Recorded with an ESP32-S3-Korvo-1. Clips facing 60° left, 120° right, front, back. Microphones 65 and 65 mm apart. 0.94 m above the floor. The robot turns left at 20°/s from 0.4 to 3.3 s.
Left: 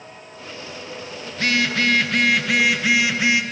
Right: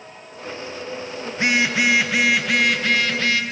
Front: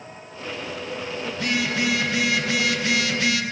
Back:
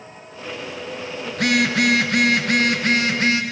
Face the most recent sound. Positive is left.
turn(degrees=135)